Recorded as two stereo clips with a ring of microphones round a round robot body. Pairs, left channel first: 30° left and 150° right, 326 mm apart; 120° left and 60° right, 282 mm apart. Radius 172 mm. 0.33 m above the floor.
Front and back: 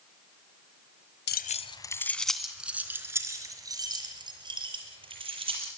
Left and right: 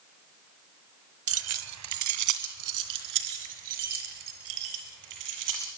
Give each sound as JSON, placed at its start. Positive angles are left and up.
{"t": 1.3, "sound": "keys jangling", "azimuth_deg": -25, "distance_m": 1.4}